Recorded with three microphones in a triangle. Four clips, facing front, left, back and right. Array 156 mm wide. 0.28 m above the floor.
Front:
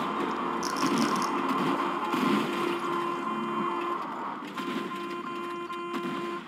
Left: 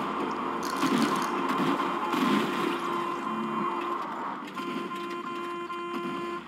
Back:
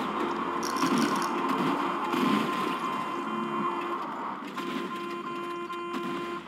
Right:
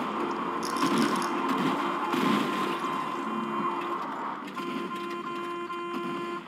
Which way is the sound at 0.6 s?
20° left.